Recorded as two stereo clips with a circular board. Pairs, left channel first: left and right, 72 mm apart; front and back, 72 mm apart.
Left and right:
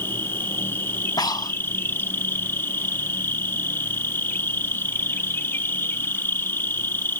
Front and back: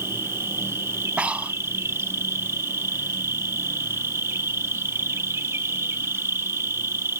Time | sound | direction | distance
0.0 | an insect | 140° left | ?
1.2 | breathing | 105° left | ?